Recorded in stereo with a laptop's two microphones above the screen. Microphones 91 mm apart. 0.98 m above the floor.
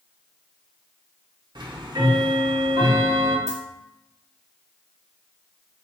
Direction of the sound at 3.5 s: 40° left (ahead or behind).